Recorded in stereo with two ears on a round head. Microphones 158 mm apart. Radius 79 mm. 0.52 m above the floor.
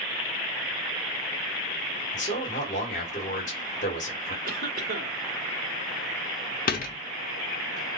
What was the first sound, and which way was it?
A man speaking, 45° left (ahead or behind).